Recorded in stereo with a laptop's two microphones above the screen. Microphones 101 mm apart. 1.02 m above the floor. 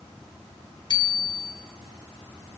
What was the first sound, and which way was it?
A bicycle bell, 50° left (ahead or behind).